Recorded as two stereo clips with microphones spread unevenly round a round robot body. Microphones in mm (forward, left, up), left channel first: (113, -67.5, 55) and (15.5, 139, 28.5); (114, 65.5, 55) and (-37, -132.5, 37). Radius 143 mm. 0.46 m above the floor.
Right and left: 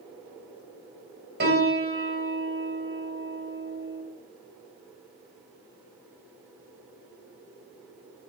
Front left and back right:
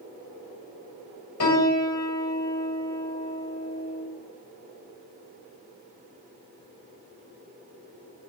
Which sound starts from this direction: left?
A piano, at 1.4 s.